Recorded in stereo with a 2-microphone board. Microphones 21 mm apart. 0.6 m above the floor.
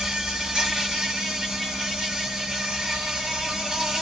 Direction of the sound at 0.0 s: 30° right (ahead or behind).